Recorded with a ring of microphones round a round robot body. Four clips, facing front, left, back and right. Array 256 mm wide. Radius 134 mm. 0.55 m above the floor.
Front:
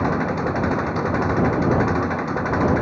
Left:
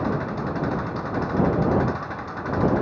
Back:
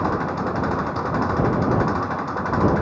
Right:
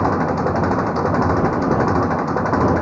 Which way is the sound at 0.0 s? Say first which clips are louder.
Right 8 dB, front 1 dB; 70° right.